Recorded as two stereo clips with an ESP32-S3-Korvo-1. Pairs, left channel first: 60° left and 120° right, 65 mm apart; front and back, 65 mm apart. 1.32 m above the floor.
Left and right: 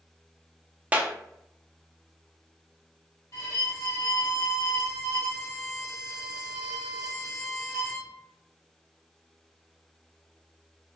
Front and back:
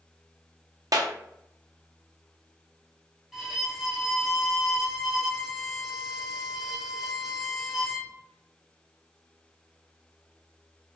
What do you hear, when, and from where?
0.9 s a clap: 175° left, 0.5 m
3.3 s a violin: 95° left, 1.2 m